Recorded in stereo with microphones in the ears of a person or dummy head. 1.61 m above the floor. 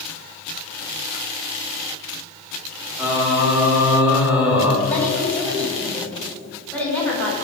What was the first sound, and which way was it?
Singing, 5° right (ahead or behind).